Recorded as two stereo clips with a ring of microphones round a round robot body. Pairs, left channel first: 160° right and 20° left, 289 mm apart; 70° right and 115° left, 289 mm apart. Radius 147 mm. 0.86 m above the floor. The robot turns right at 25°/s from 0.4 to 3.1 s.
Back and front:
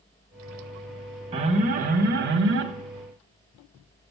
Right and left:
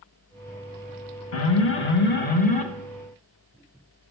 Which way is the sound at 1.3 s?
45° right.